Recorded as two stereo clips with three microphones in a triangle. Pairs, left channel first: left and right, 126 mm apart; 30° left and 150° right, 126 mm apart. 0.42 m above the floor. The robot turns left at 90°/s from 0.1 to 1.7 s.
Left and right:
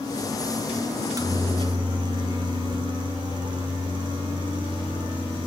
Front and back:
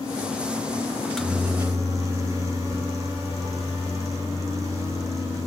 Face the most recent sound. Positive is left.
turn(degrees=-100)